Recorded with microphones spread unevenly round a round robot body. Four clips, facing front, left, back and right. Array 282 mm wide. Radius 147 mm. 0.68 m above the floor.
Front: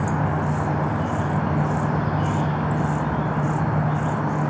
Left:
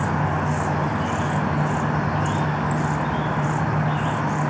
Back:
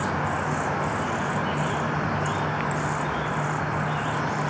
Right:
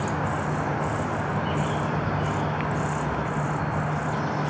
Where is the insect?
35° left, 1.2 m.